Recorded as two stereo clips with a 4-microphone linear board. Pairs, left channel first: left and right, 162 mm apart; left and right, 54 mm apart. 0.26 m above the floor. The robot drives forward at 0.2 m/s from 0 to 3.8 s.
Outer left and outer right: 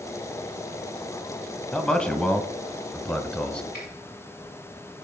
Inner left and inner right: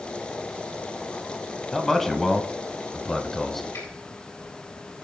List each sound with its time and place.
1.7 s a man speaking: 5° left (ahead or behind), 1.4 m; by 3.6 s 10° left (ahead or behind), 1.2 m
3.7 s a finger snap: 75° left (ahead or behind), 6.5 m